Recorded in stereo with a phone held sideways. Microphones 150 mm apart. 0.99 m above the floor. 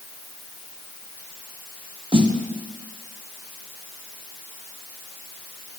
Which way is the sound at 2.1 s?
35° right (ahead or behind).